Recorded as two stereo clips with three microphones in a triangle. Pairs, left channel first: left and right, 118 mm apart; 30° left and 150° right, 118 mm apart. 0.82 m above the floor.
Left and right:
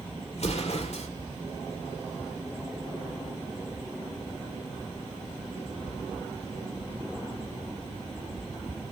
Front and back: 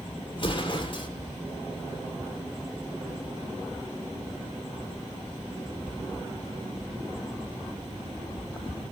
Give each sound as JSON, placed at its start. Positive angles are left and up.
{"t": 0.3, "sound": "an explosion", "azimuth_deg": 70, "distance_m": 2.5}